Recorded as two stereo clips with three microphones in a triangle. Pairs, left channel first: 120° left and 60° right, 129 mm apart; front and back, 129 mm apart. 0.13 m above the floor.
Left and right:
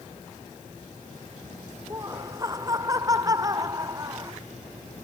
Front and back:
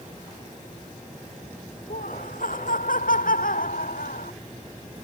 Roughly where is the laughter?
Ahead.